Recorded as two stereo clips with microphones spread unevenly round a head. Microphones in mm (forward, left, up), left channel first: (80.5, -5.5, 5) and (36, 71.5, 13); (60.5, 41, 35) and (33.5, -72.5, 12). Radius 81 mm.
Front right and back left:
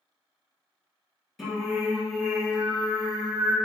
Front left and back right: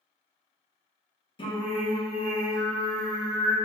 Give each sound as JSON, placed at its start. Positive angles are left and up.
{"t": 1.4, "sound": "singing", "azimuth_deg": 30, "distance_m": 1.2}